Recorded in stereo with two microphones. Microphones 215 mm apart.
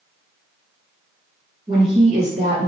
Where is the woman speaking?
25° right (ahead or behind), 1.2 m; by 2.7 s 45° right (ahead or behind), 1.5 m.